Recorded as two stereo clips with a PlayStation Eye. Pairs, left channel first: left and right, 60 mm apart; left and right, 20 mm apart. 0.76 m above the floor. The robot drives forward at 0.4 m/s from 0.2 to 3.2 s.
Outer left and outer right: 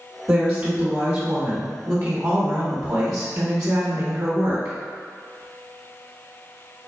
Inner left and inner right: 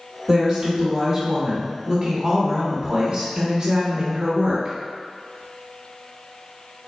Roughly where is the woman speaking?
Right.